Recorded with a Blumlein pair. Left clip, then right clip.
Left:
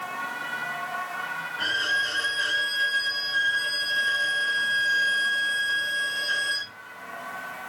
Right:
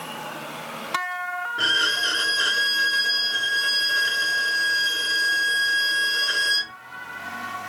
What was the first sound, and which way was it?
A violin, 55° right.